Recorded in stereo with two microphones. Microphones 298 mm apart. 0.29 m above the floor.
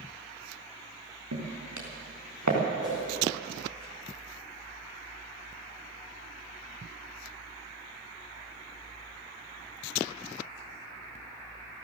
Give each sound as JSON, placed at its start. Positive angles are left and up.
{"t": 1.3, "sound": "footsteps", "side_deg": -80, "distance_m": 4.0}
{"t": 2.8, "sound": "a whoosh", "side_deg": -40, "distance_m": 8.0}